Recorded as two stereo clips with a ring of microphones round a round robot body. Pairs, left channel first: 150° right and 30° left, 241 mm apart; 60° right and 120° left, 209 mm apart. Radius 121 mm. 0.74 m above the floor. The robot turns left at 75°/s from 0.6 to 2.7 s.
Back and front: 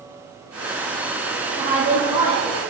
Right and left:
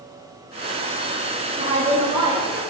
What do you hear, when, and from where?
1.6 s a woman speaking: 100° left, 1.2 m; by 2.6 s 20° left, 1.2 m